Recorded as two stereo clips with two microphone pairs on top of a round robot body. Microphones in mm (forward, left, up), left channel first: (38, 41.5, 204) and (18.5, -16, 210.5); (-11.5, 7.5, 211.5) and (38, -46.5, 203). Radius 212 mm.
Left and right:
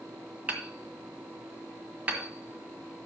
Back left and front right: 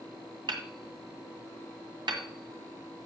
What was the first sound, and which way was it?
Hammering, 40° right.